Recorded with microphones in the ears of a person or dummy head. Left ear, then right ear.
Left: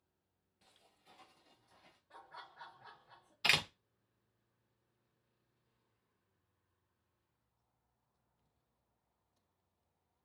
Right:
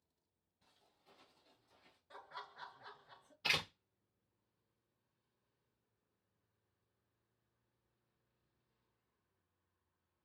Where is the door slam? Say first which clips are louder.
Left 5 dB; 30° left (ahead or behind), 0.6 m.